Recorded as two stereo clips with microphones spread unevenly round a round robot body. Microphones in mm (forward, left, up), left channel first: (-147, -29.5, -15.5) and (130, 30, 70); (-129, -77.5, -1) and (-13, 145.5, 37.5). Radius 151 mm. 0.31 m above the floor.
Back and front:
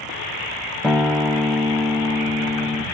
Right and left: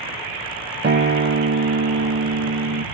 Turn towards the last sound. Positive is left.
turn(degrees=110)